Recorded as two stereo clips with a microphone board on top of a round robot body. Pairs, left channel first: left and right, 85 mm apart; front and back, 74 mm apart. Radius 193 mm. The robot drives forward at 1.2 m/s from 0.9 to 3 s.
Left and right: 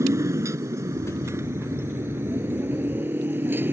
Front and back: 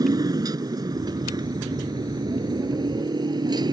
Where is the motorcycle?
145° right; by 3.7 s 155° right.